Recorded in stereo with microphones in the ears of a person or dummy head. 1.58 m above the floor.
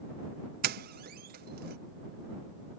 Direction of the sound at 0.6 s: 45° right (ahead or behind).